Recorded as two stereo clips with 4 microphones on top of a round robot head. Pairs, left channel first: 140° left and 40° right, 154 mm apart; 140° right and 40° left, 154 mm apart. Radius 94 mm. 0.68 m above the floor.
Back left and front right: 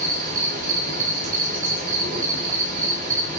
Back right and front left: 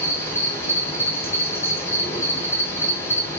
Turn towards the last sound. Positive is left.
turn(degrees=-70)